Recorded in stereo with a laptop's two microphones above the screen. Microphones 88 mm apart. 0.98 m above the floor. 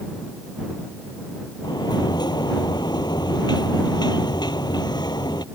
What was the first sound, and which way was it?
A sliding door, 55° left (ahead or behind).